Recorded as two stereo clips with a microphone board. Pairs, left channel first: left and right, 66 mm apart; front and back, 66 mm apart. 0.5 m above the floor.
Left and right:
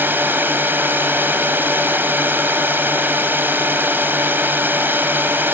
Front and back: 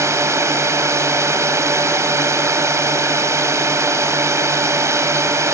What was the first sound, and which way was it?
A drone, 145° right.